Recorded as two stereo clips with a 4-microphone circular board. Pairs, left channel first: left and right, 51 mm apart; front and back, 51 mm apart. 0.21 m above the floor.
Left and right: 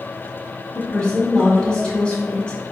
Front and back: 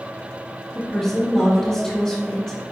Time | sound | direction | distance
0.8 | a woman speaking | 60° left | 1.1 m